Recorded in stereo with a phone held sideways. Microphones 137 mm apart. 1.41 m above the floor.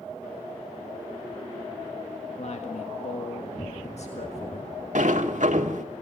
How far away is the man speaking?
About 1.7 m.